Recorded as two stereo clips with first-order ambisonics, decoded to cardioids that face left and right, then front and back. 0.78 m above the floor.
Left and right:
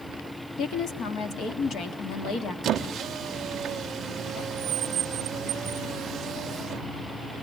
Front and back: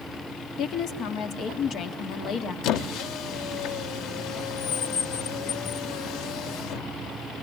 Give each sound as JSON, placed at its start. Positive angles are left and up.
{"t": 0.6, "sound": "a woman speaking", "azimuth_deg": 40, "distance_m": 1.7}
{"t": 2.6, "sound": "a squeak", "azimuth_deg": -30, "distance_m": 0.7}